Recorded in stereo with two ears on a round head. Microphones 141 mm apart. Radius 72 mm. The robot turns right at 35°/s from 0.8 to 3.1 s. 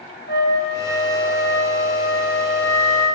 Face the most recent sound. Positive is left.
turn(degrees=-60)